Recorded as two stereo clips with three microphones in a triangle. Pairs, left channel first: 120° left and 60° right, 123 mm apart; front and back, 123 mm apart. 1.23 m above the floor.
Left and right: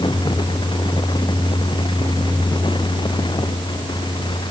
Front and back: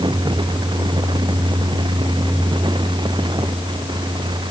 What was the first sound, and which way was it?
Only background noise.